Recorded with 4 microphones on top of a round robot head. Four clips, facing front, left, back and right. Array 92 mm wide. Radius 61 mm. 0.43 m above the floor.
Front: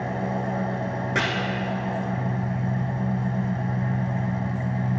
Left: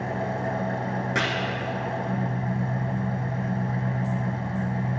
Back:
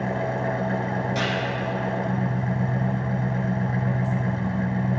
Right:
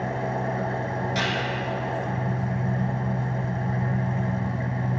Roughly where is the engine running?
Behind.